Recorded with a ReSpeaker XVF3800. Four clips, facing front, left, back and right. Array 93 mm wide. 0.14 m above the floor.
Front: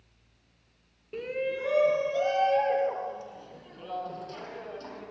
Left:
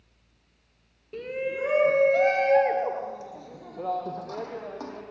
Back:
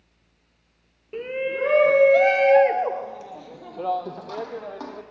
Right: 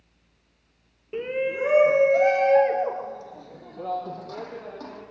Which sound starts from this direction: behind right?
A shout, at 1.1 s.